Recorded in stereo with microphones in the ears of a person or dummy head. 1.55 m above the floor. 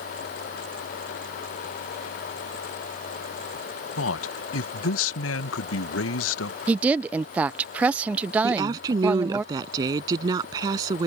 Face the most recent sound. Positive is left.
turn(degrees=-20)  # may be behind; listen again after turning